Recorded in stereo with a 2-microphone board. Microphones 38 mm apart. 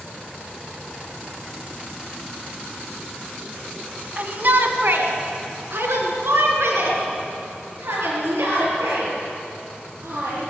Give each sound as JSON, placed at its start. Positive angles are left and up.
{"t": 4.2, "sound": "a shout", "side_deg": -45, "distance_m": 2.5}